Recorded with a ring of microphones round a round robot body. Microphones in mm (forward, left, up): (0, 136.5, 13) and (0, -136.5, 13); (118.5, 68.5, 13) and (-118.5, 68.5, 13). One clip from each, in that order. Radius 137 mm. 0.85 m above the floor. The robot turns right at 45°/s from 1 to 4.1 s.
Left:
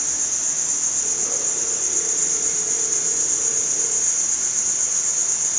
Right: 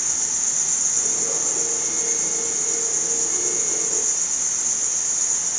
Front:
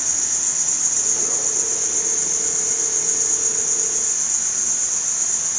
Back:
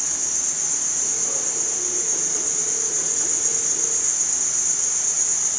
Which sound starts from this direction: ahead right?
An insect, at 0.0 s.